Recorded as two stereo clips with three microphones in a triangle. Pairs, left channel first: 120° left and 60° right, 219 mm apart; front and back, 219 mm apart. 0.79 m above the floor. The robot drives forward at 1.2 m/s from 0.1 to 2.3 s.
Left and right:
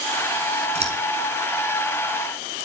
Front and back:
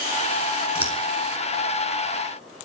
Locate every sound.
0.8 s scissors: straight ahead, 6 m